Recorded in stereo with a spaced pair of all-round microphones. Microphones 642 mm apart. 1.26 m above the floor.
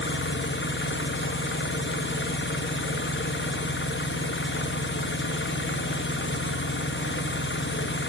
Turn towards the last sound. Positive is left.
turn(degrees=20)  # may be behind; listen again after turning